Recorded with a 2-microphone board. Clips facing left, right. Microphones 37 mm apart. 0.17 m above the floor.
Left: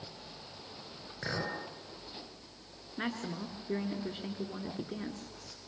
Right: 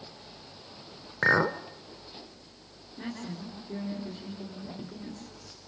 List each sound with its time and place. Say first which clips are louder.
1.2 s a clink: right 13 dB; 55° right (ahead or behind), 1.2 m
3.0 s a woman speaking: left 1 dB; 55° left (ahead or behind), 2.5 m